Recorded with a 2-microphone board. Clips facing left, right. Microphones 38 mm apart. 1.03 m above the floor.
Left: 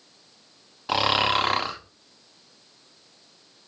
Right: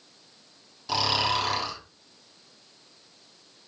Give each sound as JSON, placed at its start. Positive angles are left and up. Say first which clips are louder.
{"t": 0.9, "sound": "snoring", "louder": "left 4 dB", "side_deg": 40, "distance_m": 0.6}